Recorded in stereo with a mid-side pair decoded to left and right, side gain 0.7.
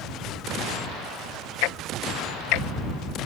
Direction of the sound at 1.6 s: 70° left.